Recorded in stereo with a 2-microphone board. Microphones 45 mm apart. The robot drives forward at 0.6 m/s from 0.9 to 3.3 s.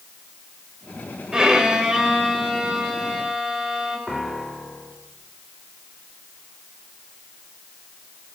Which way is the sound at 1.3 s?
15° right (ahead or behind).